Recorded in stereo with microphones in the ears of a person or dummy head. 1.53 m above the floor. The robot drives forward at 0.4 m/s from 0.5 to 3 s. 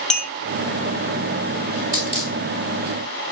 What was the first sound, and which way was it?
A clink, 5° left (ahead or behind).